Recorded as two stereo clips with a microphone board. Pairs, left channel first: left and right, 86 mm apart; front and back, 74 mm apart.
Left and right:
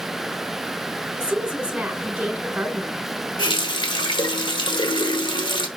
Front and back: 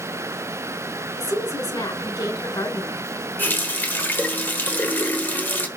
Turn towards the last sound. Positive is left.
turn(degrees=65)